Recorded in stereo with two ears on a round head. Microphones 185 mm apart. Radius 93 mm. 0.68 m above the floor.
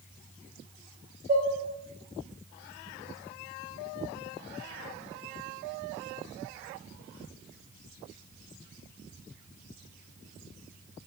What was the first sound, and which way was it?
Dishes clattering, 45° right (ahead or behind).